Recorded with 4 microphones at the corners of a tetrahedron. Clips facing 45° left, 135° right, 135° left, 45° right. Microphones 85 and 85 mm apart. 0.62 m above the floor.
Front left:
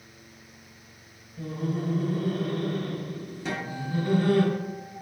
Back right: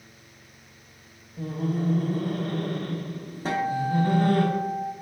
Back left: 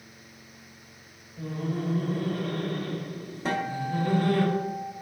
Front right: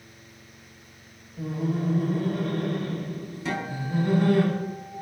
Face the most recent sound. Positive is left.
turn(degrees=180)